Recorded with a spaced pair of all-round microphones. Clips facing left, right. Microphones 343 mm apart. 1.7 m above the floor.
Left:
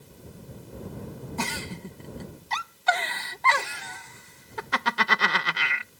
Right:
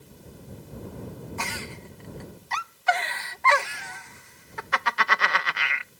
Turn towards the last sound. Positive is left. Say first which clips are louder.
# left 4 dB
turn(degrees=45)  # may be behind; listen again after turning